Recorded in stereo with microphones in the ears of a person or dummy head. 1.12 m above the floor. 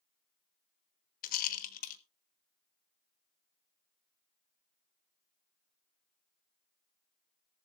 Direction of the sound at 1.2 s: 50° left (ahead or behind).